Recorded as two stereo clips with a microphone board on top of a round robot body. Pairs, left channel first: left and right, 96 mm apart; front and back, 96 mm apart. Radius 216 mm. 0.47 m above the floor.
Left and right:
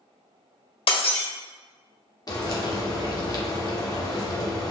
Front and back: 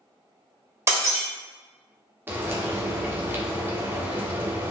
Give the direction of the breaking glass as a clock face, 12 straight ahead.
8 o'clock.